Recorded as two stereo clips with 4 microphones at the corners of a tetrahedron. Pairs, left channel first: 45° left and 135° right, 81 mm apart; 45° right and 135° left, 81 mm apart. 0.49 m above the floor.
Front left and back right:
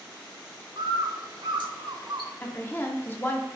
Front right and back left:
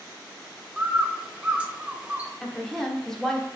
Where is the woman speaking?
30° left, 0.7 m.